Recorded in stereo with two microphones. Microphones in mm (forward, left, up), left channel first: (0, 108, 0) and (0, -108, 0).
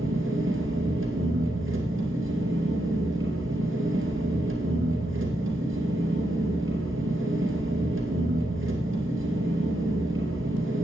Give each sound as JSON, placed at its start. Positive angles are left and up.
{"t": 0.0, "sound": "an engine running", "side_deg": -70, "distance_m": 2.0}